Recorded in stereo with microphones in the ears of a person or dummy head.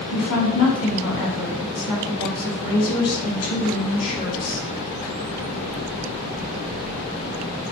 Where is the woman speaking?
90° left, 1.4 m.